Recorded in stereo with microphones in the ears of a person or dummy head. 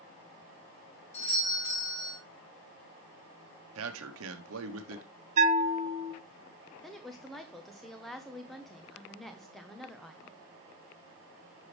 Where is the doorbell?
40° left (ahead or behind), 3.5 m.